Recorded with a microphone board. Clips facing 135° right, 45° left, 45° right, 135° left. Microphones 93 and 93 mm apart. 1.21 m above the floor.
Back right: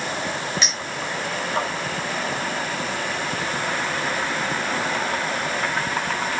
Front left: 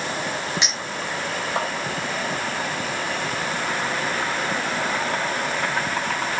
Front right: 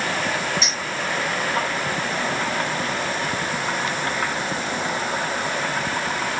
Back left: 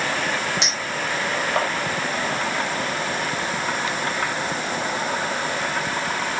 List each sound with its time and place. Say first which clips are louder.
0.6 s a clink: even, even; 115° left, 4.5 m